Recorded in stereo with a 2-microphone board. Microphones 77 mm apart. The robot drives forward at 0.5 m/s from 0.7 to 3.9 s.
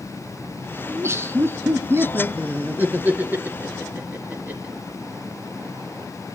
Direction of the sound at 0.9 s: 35° right (ahead or behind).